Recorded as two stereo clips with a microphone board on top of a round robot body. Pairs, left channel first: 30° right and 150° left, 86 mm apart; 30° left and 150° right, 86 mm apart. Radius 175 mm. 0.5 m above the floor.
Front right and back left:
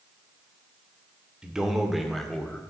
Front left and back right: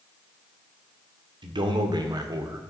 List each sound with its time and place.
1.4 s a man speaking: 130° right, 2 m; by 2.6 s 110° right, 1.7 m